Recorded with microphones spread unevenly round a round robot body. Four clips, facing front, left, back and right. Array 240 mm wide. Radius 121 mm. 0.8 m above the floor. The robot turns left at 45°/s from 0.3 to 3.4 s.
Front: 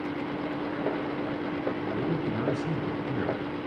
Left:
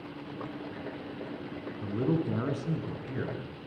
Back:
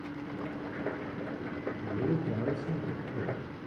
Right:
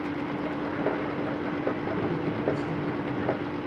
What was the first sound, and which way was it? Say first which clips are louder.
A man speaking: right 1 dB, front 3 dB; 60° left.